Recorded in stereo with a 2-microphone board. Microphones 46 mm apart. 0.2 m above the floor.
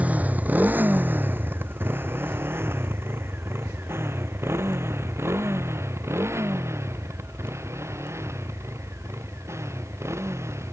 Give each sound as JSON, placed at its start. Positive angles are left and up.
{"t": 0.0, "sound": "a motorcycle", "side_deg": -30}